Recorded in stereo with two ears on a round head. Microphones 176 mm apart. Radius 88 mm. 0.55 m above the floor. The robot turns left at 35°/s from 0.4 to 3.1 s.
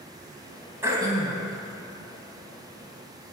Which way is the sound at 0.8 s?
15° right (ahead or behind).